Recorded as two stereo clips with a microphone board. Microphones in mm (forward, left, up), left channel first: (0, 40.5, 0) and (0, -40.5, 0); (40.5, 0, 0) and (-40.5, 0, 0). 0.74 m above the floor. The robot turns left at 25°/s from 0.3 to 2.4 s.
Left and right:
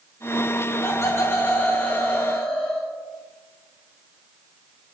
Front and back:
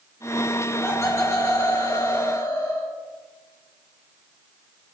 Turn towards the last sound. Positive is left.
turn(degrees=5)